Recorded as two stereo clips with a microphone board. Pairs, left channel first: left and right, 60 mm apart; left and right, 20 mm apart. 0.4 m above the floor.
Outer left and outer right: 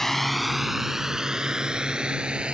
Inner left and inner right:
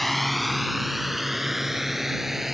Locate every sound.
0.0 s a drone: 5° left (ahead or behind); by 2.5 s 15° right (ahead or behind)